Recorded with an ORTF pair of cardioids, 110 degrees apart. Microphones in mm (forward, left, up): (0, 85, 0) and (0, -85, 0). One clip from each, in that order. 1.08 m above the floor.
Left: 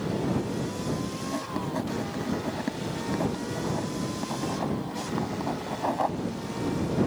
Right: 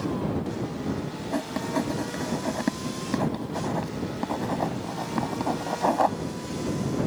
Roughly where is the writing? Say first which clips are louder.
Right 5 dB; ahead right.